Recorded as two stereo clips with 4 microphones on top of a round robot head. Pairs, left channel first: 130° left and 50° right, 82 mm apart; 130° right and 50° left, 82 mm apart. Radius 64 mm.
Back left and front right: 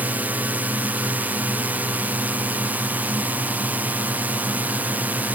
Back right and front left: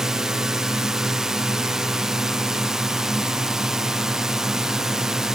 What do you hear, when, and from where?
0.0 s a drone: 20° right